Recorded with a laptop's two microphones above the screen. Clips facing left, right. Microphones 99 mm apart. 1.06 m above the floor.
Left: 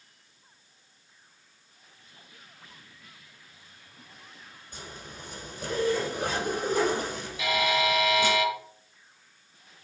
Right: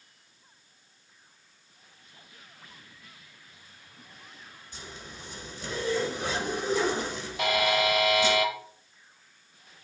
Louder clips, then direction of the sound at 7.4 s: Right 1 dB; 65° right (ahead or behind).